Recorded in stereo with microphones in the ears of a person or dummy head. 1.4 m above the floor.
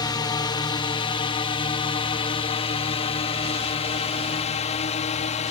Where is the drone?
25° left (ahead or behind); by 5.5 s 40° left (ahead or behind).